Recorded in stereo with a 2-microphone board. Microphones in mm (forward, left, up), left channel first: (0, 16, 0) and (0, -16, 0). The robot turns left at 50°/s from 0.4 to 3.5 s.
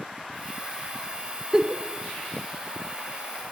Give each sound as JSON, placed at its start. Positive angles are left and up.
{"t": 1.5, "sound": "a giggle", "side_deg": -15, "distance_m": 0.6}